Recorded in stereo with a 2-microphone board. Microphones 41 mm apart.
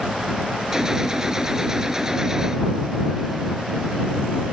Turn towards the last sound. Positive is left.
turn(degrees=-15)  # may be behind; listen again after turning